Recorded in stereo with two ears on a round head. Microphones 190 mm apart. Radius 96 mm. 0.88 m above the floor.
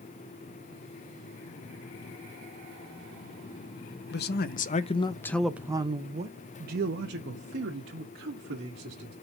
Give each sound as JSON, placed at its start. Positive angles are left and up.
{"t": 4.1, "sound": "a man speaking", "side_deg": 55, "distance_m": 0.8}